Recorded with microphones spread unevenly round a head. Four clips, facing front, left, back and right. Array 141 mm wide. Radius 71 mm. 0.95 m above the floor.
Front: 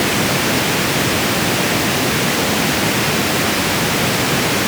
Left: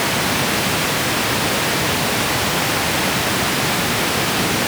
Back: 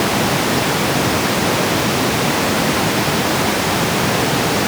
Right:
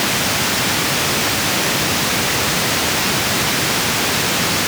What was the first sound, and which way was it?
Only background noise.